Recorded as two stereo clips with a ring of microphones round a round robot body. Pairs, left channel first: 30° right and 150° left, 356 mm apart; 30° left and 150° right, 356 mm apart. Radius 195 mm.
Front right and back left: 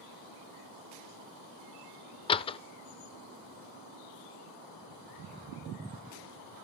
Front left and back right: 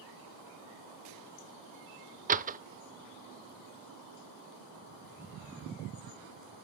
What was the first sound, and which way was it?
A door slam, 95° right.